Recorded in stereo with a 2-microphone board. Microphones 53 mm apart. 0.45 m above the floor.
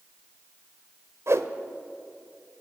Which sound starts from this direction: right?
A whoosh, at 1.3 s.